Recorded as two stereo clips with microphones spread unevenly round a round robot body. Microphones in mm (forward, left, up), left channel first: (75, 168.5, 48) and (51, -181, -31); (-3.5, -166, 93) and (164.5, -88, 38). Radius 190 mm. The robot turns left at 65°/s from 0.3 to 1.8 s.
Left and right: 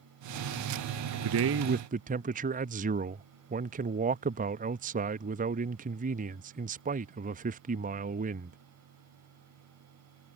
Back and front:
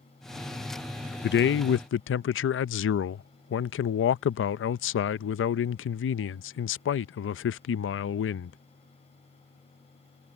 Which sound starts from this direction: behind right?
A man speaking, at 1.2 s.